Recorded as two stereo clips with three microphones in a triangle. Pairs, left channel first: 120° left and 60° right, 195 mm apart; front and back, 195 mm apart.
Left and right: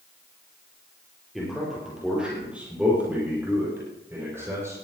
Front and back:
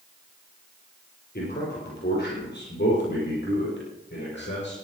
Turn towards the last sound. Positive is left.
turn(degrees=15)